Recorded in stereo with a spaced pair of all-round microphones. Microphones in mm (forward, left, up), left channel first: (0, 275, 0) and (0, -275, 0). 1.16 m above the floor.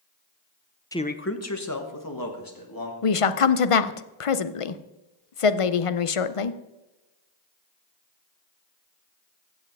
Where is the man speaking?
5° left (ahead or behind), 0.6 m; by 2.9 s 40° left (ahead or behind), 2.5 m.